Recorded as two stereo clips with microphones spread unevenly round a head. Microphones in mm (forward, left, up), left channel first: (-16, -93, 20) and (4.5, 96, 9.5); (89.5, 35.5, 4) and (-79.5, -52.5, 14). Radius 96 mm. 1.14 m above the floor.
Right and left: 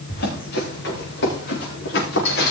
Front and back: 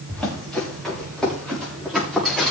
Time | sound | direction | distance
0.1 | running footsteps | 60° right | 7 m